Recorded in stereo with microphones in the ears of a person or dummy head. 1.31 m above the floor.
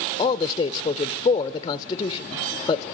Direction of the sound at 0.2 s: 35° left (ahead or behind).